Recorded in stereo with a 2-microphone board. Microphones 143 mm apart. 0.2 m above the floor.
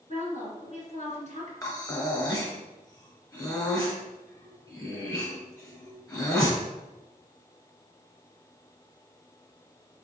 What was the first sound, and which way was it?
A woman speaking, 55° left (ahead or behind).